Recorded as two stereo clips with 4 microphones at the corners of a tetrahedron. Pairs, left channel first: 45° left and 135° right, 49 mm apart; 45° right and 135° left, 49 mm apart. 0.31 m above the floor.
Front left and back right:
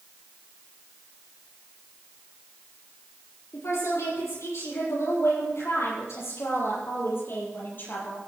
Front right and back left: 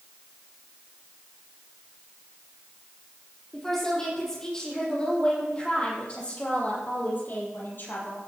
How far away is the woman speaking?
About 9 m.